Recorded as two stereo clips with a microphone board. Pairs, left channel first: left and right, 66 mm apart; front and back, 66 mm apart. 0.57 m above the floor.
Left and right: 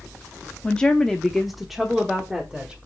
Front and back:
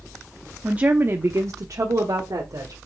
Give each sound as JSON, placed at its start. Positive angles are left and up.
{"t": 0.6, "sound": "a woman speaking", "azimuth_deg": 135, "distance_m": 0.7}